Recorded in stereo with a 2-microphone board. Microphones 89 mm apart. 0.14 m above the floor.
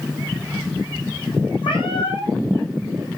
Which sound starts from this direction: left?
A cat meowing, at 1.6 s.